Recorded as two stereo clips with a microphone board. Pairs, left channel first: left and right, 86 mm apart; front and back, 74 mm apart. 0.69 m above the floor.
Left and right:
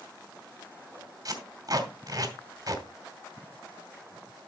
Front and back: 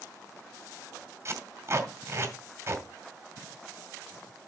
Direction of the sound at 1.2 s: 130° right.